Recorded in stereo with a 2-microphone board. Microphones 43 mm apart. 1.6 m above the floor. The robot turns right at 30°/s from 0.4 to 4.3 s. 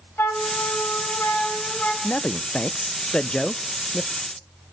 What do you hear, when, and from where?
0.2 s a flute: 85° left, 3 m; by 1.9 s 135° left, 3 m
2.0 s a man speaking: 115° left, 0.6 m; by 4.1 s 175° left, 0.6 m